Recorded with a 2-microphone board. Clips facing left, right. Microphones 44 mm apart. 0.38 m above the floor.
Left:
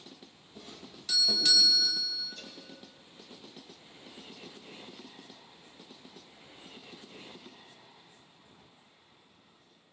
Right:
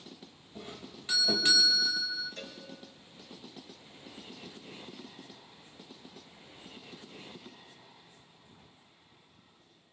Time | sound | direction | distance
0.6 | a doorbell | 30° right (ahead or behind) | 3 m
2.4 | a cowbell | 50° right (ahead or behind) | 6 m